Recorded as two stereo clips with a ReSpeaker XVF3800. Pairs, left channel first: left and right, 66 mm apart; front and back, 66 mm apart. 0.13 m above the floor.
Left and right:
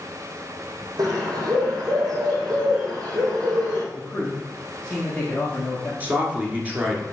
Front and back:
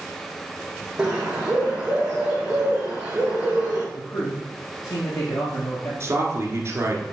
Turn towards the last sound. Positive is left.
turn(degrees=-150)